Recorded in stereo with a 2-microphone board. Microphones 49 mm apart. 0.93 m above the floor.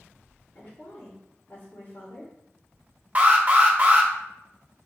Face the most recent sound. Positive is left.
turn(degrees=-30)  # may be behind; listen again after turning